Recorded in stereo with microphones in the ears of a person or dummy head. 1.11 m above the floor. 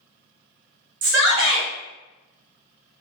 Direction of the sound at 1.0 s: 60° right (ahead or behind).